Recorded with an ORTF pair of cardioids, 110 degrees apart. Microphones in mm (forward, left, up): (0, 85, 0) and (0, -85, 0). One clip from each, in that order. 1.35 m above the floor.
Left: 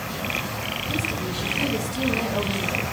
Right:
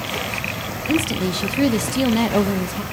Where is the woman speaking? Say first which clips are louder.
Right 5 dB; 60° right, 1.1 m.